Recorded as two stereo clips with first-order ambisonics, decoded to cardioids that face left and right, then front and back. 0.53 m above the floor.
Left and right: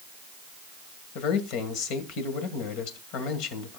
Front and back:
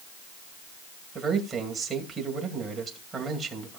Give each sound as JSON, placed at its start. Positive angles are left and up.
{"t": 1.1, "sound": "a man speaking", "azimuth_deg": 105, "distance_m": 2.0}